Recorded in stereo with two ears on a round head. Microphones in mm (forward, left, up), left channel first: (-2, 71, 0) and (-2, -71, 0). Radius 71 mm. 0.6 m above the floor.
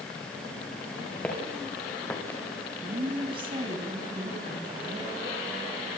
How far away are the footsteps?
About 5.5 m.